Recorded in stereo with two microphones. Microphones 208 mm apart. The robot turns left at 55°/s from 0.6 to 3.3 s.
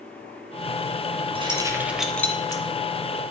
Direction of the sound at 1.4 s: 25° right (ahead or behind).